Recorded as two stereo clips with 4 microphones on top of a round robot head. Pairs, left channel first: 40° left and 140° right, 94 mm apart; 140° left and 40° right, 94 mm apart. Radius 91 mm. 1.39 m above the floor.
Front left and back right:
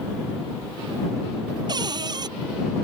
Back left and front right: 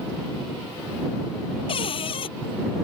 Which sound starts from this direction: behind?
A cupboard door, at 1.7 s.